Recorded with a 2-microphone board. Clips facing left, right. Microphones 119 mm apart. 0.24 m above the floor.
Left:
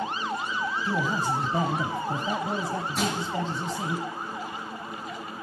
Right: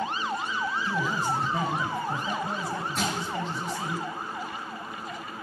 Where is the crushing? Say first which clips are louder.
Left 2 dB; centre (ahead or behind), 4.5 m.